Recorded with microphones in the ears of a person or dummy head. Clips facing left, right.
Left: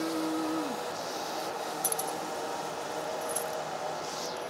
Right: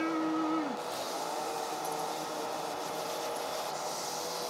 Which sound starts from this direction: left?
Keys jangling, at 1.8 s.